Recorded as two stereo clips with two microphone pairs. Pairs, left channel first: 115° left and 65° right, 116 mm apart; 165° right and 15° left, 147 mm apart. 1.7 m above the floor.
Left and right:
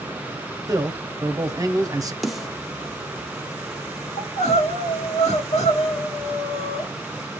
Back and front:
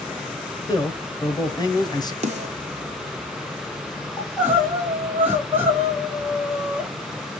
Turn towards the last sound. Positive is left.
turn(degrees=90)